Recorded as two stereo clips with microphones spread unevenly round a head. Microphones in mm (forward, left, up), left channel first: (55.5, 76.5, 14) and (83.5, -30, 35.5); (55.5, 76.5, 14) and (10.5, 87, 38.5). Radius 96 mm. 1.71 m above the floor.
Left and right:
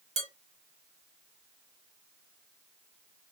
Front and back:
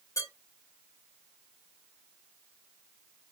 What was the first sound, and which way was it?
Dishes clattering, 75° right.